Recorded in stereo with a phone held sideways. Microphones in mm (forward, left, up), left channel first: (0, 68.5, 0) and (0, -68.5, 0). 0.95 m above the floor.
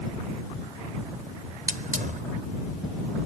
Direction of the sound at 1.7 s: 85° right.